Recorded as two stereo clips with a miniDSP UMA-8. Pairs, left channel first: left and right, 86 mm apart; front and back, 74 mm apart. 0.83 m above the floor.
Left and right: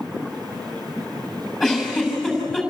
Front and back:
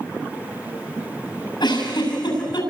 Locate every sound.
1.6 s a giggle: 10° left, 8 m